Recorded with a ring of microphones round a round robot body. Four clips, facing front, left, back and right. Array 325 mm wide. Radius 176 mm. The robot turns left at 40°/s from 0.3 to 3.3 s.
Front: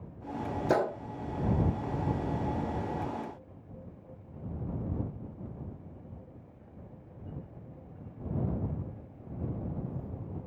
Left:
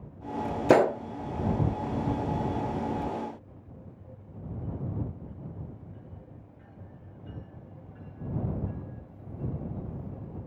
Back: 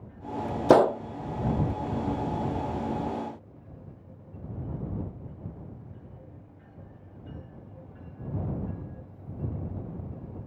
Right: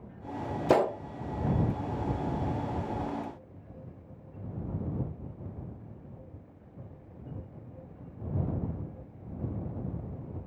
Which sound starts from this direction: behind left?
A gunshot, at 0.7 s.